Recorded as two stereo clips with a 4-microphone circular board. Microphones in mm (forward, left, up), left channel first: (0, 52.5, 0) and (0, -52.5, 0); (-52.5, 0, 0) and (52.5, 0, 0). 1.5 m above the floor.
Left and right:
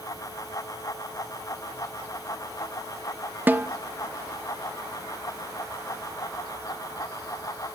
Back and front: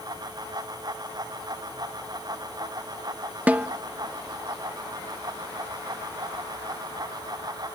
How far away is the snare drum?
About 0.7 m.